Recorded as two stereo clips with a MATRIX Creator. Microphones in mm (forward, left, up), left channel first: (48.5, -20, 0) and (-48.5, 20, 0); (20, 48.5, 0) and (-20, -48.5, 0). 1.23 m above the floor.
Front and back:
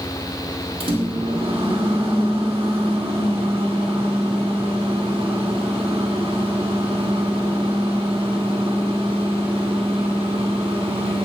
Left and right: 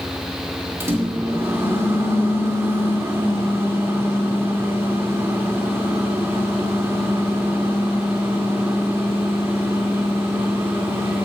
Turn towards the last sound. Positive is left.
turn(degrees=-175)